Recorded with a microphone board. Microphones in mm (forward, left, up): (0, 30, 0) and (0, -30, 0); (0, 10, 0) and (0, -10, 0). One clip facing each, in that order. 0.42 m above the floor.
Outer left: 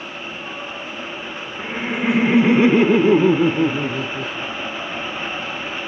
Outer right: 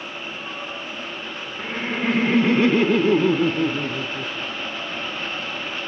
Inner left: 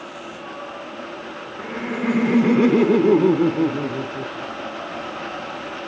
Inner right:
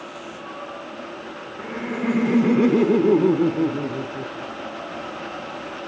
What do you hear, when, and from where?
1.6 s laughter: 5° left (ahead or behind), 1.0 m; by 5.5 s 20° left (ahead or behind), 1.7 m